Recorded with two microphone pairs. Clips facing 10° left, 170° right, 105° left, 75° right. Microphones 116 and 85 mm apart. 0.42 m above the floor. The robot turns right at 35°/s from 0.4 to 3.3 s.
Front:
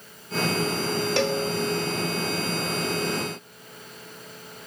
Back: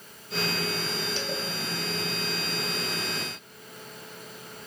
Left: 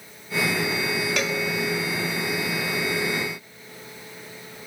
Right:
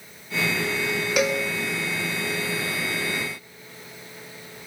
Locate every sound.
1.2 s a cowbell: straight ahead, 1.3 m; by 1.4 s 10° left, 1.3 m